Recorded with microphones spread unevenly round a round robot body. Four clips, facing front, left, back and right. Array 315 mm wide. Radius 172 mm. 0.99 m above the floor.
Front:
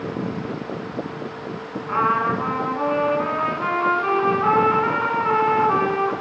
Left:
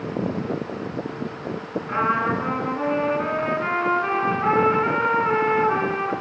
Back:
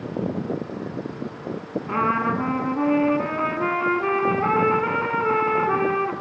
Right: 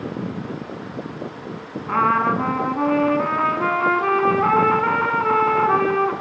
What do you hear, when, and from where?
1.9 s a trumpet: 155° right, 3 m